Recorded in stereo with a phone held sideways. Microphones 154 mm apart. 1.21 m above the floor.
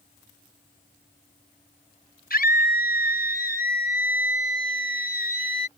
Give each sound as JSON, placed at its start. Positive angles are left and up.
{"t": 2.3, "sound": "a scream", "side_deg": 85}